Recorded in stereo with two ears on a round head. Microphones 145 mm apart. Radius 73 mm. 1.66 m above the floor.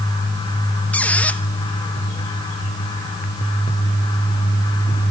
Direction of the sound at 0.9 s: 10° left (ahead or behind).